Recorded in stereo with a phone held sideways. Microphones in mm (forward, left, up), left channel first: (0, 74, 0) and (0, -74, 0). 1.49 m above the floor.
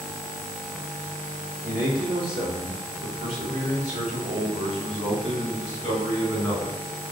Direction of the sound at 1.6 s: 65° right (ahead or behind).